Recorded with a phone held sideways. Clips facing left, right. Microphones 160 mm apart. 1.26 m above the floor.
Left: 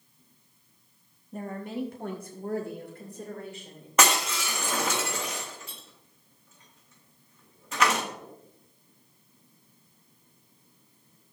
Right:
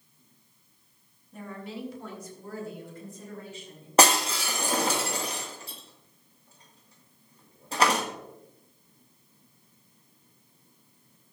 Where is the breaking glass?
35° right (ahead or behind), 1.5 m.